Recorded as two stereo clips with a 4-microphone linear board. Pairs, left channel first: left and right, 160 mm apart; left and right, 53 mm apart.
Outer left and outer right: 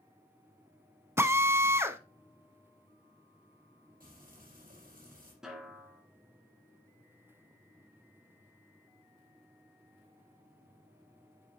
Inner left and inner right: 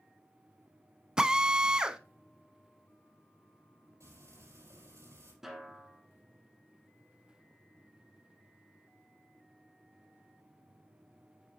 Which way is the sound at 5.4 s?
5° right (ahead or behind).